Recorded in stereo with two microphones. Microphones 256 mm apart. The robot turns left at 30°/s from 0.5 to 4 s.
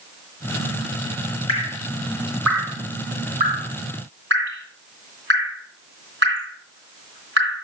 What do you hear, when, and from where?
1.5 s dripping: 20° left (ahead or behind), 3 m; by 7.6 s 50° right (ahead or behind), 3 m